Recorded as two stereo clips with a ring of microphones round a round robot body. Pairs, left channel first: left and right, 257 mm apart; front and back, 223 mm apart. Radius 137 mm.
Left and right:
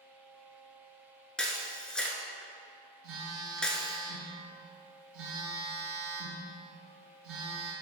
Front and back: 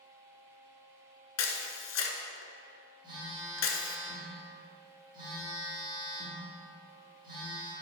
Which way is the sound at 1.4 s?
5° left.